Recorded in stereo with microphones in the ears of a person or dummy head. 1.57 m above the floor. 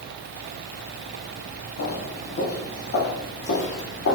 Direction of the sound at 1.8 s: 50° left (ahead or behind).